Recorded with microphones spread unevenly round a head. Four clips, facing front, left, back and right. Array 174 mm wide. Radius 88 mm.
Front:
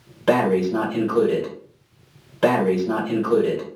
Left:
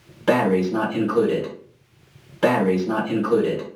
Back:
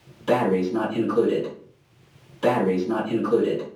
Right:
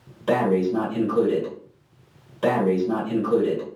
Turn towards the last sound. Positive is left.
turn(degrees=30)